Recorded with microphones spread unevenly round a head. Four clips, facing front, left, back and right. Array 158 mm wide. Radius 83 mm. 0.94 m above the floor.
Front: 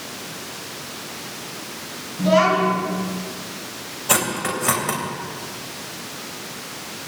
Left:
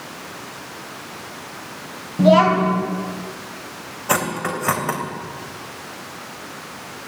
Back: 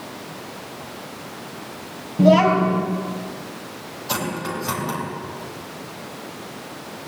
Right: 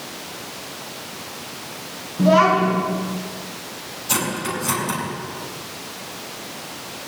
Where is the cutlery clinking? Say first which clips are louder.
Left 3 dB, front 3 dB; 55° left, 3 m.